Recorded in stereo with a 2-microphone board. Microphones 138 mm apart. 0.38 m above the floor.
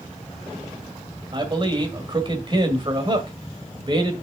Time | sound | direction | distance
1.3 | a man speaking | 35° right (ahead or behind) | 1.8 m